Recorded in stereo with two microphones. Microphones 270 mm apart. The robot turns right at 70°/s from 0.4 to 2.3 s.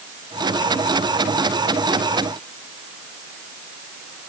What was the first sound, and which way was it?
Only background noise.